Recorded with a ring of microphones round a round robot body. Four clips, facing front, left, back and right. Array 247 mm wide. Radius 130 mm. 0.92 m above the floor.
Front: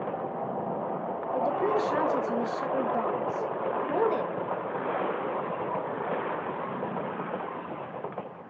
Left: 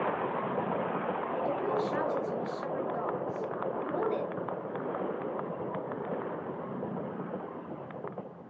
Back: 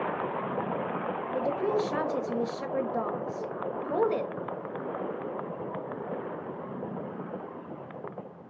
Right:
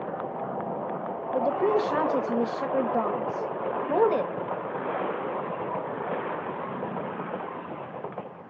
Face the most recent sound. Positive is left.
turn(degrees=-100)